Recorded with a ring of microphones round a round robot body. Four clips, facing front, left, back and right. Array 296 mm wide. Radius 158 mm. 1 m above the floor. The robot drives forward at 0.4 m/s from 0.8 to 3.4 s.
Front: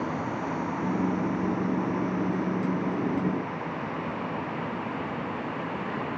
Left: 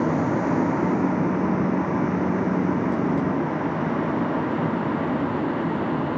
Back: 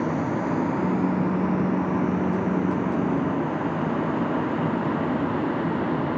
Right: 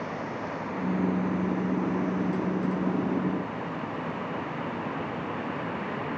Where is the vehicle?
110° left; by 6.2 s 135° left.